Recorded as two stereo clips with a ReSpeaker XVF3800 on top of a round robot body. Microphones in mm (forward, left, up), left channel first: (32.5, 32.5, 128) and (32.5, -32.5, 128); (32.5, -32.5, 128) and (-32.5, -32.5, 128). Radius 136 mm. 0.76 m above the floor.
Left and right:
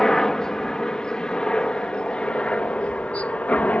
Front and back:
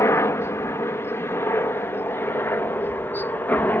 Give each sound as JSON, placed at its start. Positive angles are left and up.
{"t": 0.0, "sound": "a helicopter", "azimuth_deg": 10}